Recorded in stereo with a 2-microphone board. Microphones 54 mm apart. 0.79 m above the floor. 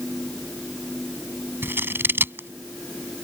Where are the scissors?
45° right (ahead or behind).